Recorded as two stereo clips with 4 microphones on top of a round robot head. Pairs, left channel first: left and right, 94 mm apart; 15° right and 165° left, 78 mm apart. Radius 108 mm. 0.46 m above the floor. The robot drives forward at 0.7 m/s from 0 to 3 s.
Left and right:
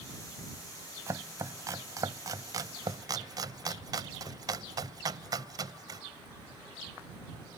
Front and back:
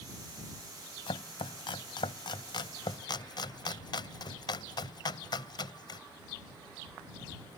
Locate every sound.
1.1 s chopping: 30° right; by 6.0 s 40° right